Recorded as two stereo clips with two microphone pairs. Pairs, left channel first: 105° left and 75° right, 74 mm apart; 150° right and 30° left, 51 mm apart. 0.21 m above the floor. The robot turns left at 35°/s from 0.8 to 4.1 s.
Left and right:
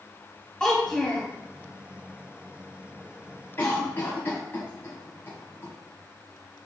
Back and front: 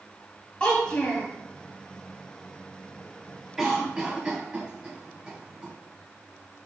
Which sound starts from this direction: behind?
A child speaking, at 0.6 s.